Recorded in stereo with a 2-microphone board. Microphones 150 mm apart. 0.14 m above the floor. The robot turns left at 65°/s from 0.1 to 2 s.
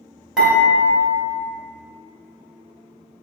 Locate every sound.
0.4 s dishes clattering: 175° right, 1.7 m; by 1.0 s 145° left, 1.7 m